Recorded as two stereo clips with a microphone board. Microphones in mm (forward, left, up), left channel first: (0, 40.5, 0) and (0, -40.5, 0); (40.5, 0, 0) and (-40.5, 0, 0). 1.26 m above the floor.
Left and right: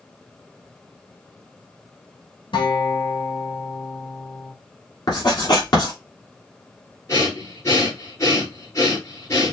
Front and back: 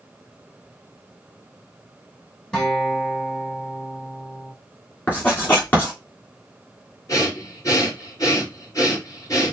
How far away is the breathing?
About 3.5 m.